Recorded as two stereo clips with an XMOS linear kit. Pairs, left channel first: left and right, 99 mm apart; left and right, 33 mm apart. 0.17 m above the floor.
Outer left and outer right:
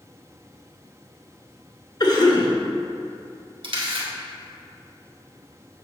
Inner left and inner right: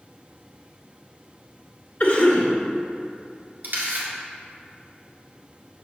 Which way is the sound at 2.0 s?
45° left (ahead or behind).